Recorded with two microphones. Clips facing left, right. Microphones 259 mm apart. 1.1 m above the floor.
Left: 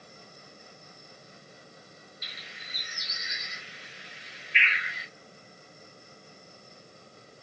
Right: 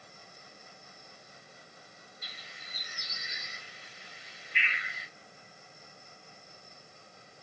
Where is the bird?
85° left, 0.6 m.